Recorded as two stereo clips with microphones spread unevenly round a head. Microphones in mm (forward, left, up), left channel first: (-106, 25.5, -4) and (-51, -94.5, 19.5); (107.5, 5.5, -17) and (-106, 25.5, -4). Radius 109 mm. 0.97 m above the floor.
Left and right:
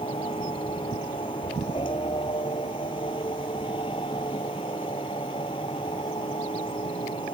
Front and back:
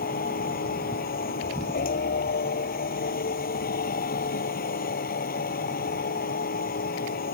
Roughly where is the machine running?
Ahead left.